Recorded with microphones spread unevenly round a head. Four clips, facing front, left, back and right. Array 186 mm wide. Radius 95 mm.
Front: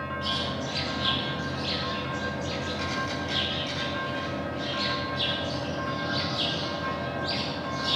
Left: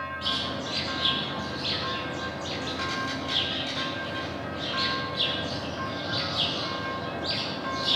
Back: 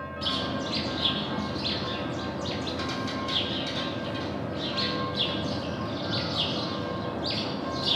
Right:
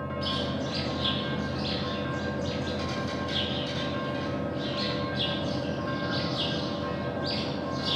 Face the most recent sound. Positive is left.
turn(degrees=-170)